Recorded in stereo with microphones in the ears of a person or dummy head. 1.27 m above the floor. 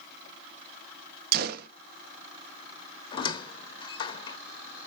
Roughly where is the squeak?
Left.